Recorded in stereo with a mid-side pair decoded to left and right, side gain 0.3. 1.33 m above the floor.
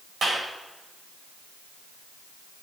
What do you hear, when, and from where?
0.2 s a clap: 60° right, 7.5 m